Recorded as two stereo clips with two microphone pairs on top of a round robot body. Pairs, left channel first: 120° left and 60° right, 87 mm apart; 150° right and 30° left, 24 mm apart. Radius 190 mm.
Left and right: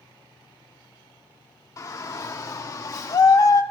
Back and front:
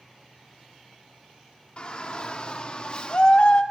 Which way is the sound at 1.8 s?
170° left.